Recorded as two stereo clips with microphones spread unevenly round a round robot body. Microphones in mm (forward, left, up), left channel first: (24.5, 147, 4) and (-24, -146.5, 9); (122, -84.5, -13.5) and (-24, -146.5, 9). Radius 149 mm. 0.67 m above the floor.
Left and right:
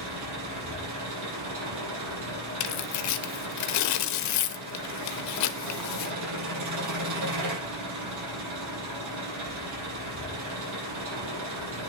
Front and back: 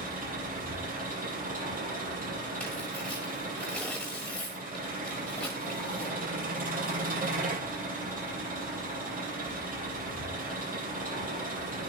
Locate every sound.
0.0 s an engine running: 130° right, 6.5 m
2.6 s tearing paper: 110° left, 0.8 m